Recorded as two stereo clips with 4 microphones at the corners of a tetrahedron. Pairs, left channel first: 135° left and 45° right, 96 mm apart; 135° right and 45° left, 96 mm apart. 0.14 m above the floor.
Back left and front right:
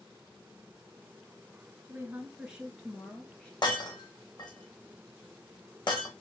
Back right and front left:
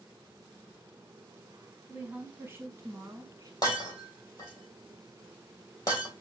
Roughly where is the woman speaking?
Ahead.